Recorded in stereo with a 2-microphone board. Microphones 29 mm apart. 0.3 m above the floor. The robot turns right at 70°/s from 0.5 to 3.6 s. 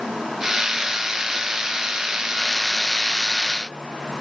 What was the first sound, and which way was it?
Only background noise.